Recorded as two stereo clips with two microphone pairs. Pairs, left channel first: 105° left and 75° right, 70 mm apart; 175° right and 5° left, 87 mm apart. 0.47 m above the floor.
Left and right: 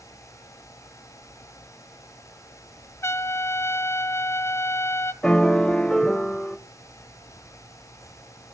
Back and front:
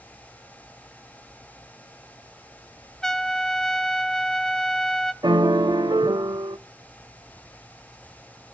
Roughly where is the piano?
Ahead left.